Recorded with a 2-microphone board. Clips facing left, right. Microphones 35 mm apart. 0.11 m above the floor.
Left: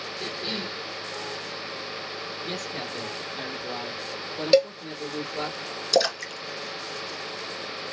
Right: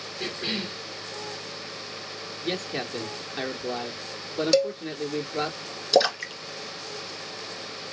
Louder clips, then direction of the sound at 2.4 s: Right 5 dB; 40° right (ahead or behind).